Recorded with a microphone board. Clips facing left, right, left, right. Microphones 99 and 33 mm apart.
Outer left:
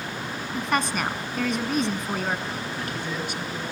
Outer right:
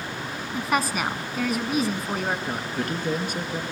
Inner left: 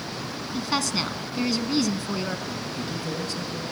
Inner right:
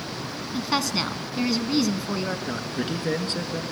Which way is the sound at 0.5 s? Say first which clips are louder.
Outer right 1 dB, inner right 1 dB; 5° right (ahead or behind).